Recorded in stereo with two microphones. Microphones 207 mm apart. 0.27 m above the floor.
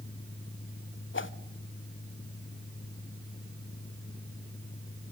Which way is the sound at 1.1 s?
70° left (ahead or behind).